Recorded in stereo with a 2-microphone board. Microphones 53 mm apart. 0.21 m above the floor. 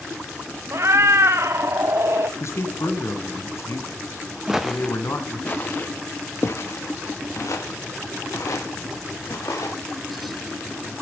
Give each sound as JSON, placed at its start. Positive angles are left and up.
{"t": 0.7, "sound": "a cat meowing", "side_deg": -55, "distance_m": 0.7}
{"t": 2.4, "sound": "a man speaking", "side_deg": 55, "distance_m": 1.9}
{"t": 4.5, "sound": "footsteps", "side_deg": -10, "distance_m": 1.1}